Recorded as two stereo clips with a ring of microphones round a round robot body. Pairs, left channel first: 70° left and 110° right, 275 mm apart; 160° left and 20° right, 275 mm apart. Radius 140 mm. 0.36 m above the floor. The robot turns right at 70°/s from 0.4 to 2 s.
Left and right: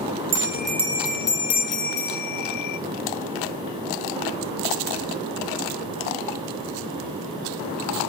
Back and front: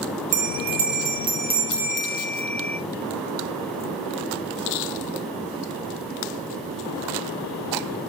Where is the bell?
45° right, 1.4 m; by 2.8 s 70° left, 1.4 m.